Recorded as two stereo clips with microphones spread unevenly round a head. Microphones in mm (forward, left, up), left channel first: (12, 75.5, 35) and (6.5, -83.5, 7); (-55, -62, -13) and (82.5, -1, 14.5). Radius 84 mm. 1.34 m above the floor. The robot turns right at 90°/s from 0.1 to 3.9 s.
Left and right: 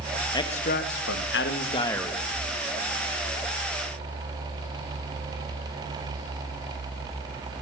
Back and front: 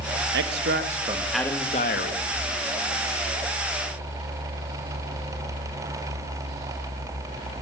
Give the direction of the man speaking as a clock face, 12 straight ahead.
11 o'clock.